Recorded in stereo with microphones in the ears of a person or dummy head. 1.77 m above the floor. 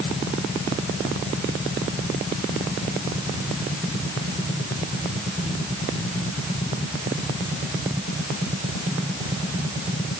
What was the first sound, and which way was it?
Only background noise.